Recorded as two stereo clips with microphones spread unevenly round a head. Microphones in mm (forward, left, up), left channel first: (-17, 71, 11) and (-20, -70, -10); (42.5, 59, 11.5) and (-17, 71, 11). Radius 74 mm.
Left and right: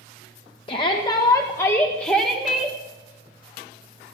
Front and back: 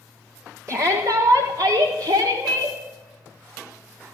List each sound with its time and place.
0.7 s a shout: 135° left, 1.5 m; by 2.8 s straight behind, 1.6 m